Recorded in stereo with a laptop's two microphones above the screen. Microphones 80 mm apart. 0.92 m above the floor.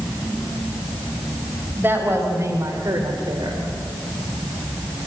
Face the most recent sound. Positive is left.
turn(degrees=-75)  # may be behind; listen again after turning